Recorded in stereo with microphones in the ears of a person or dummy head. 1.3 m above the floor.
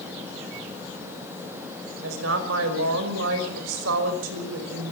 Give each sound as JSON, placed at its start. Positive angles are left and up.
{"t": 2.0, "sound": "a woman speaking", "side_deg": -90, "distance_m": 5.0}